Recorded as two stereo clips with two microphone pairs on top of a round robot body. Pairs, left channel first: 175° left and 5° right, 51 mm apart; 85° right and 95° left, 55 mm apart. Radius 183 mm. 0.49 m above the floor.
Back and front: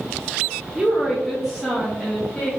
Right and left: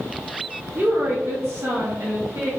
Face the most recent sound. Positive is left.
turn(degrees=110)